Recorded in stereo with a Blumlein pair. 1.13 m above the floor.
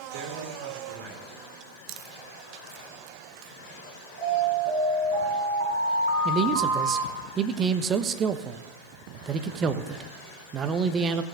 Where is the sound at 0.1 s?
55° right, 4 m.